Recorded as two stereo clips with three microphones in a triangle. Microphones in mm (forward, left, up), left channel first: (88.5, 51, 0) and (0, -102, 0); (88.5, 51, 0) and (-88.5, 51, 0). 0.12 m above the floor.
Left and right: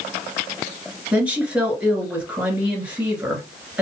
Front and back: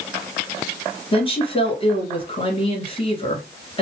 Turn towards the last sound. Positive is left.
turn(degrees=-40)